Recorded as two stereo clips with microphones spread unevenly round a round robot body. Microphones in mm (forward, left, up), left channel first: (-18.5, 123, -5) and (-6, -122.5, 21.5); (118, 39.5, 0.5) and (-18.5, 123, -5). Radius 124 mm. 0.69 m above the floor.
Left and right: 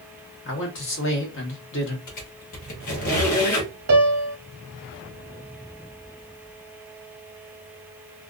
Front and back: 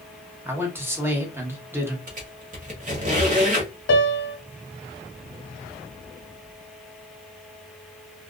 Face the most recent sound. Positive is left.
turn(degrees=-35)